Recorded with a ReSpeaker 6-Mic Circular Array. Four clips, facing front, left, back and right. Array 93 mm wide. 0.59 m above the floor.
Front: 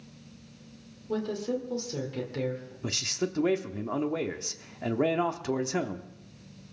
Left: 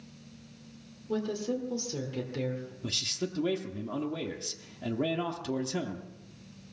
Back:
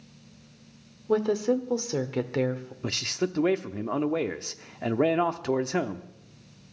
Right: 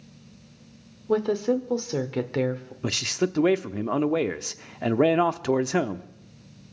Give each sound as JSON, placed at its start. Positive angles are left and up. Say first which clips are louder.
{"t": 1.1, "sound": "a woman speaking", "louder": "right 9 dB, back 7 dB", "azimuth_deg": -130, "distance_m": 1.8}
{"t": 2.8, "sound": "a man speaking", "louder": "right 12 dB, back 3 dB", "azimuth_deg": -105, "distance_m": 0.9}